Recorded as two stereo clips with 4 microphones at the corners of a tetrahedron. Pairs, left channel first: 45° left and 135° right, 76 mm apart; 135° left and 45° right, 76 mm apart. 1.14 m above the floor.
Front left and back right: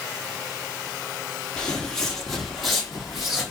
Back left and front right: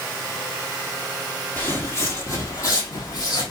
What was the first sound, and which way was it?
Footsteps, 110° left.